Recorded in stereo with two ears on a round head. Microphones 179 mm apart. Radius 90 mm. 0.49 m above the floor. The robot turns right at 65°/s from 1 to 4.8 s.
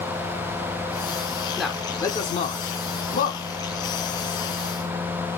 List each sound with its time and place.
1.6 s a man speaking: centre (ahead or behind), 1.3 m; by 3.4 s 35° left (ahead or behind), 1.3 m